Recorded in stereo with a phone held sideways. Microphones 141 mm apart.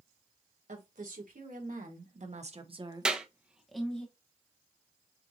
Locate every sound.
0.7 s a woman speaking: 85° right, 2 m; by 4.0 s 10° left (ahead or behind), 1.4 m
3.0 s a clap: 5° right (ahead or behind), 1.0 m